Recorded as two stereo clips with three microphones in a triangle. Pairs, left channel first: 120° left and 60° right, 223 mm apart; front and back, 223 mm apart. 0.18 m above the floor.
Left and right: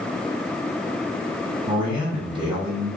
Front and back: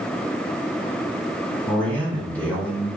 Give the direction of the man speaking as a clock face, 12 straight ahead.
2 o'clock.